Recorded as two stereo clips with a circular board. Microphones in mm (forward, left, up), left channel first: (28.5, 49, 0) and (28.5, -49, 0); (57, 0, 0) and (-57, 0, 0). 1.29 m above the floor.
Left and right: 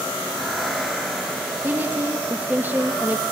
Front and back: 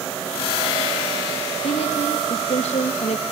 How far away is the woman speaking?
About 2 m.